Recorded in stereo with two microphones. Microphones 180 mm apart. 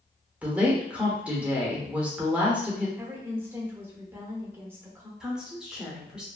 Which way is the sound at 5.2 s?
5° right (ahead or behind).